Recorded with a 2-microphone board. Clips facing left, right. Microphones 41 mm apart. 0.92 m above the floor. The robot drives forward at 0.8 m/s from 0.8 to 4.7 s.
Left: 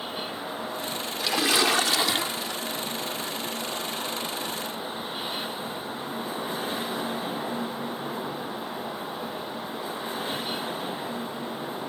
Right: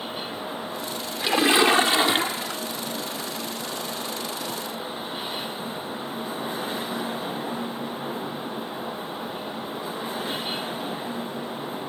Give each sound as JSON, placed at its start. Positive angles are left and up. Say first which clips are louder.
{"t": 1.2, "sound": "a splash", "louder": "right 5 dB", "side_deg": -25}